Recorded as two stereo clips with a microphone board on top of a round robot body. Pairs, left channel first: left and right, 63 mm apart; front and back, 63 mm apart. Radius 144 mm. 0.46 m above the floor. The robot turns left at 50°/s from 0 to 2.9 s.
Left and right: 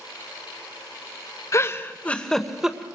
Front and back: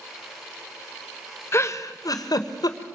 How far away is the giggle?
About 1.6 m.